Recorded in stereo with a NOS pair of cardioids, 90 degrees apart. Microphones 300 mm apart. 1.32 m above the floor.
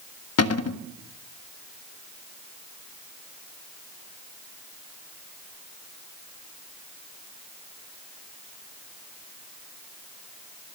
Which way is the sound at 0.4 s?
60° left.